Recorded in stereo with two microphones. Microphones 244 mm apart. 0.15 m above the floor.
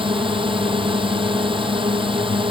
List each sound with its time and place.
0.0 s a drone: 20° right (ahead or behind)